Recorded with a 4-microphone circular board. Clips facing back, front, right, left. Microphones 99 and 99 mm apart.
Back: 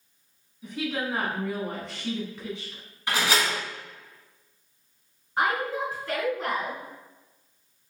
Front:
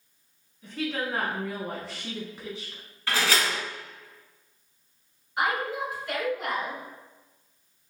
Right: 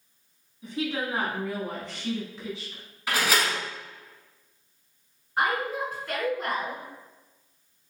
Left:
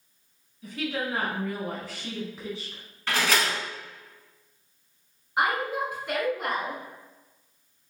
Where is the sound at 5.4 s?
155° left, 1.7 m.